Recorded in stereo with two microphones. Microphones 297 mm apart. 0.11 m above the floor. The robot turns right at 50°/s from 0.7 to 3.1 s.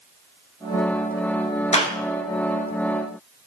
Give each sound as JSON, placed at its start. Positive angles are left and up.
{"t": 1.7, "sound": "a clap", "side_deg": 25, "distance_m": 1.6}